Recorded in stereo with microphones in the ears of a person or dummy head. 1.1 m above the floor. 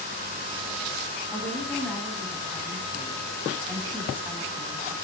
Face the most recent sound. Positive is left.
turn(degrees=5)  # may be behind; listen again after turning